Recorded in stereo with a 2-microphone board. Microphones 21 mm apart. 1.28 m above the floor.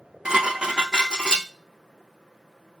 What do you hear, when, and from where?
0.2 s dishes clattering: 40° right (ahead or behind), 0.6 m